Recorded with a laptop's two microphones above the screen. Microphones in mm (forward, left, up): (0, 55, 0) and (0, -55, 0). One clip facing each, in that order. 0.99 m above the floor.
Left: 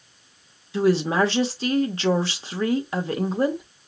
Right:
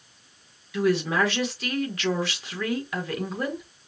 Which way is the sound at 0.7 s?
30° left (ahead or behind).